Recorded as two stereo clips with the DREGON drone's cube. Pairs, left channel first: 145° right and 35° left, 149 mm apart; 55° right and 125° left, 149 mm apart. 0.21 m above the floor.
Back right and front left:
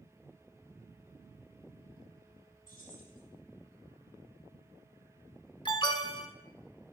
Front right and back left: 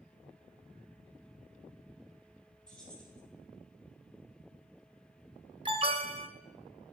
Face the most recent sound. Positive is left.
turn(degrees=170)